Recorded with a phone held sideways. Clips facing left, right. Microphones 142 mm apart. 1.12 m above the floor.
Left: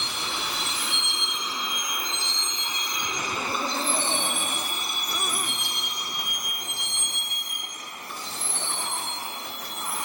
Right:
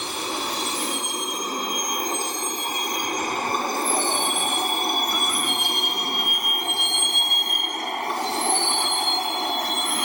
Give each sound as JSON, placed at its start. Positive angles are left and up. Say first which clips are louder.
{"t": 0.0, "sound": "a vehicle", "louder": "right 5 dB", "side_deg": -40}